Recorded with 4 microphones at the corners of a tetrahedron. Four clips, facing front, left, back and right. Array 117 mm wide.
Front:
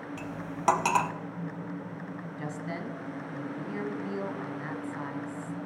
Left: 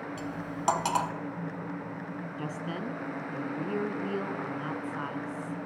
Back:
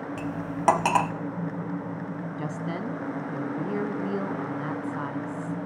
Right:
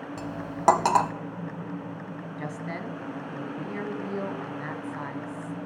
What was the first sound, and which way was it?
Cutlery clinking, 105° right.